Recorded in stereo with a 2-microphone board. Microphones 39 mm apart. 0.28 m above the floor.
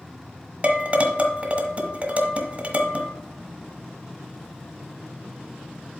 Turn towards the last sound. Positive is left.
turn(degrees=-35)  # may be behind; listen again after turning